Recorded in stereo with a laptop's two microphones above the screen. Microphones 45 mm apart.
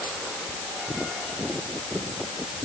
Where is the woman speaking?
I don't hear a woman speaking.